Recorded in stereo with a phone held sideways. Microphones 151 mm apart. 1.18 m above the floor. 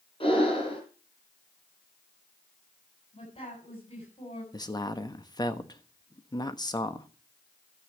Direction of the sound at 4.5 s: 25° left (ahead or behind).